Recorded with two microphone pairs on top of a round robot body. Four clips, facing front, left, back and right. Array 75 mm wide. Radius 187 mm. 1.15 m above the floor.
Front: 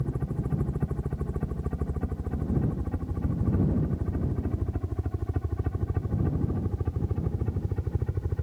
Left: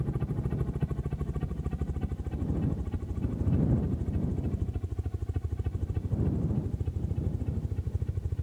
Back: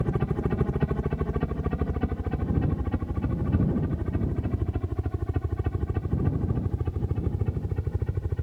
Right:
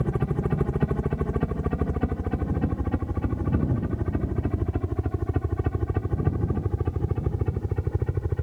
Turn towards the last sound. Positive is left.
turn(degrees=-80)